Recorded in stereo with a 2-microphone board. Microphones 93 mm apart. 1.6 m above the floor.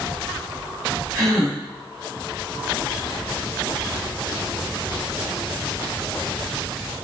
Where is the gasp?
40° right (ahead or behind), 1.8 m.